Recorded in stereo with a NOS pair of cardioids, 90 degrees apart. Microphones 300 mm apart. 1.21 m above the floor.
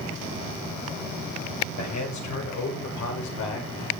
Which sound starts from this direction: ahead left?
A man speaking, at 1.8 s.